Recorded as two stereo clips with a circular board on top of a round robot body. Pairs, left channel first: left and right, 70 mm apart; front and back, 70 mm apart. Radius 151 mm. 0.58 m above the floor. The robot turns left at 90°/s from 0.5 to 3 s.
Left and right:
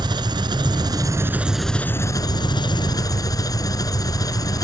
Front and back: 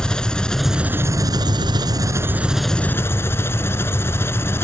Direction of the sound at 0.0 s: 80° right.